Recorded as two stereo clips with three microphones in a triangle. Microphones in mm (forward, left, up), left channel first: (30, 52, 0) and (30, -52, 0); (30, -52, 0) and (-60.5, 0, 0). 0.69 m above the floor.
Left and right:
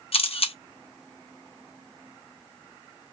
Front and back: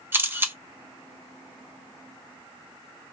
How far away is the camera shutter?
About 0.6 m.